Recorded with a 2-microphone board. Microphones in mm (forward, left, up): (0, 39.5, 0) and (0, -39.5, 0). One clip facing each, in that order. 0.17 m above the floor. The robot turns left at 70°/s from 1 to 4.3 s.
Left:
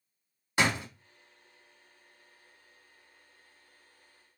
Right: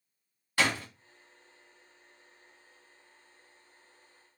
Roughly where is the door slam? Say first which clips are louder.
Left 1 dB; centre.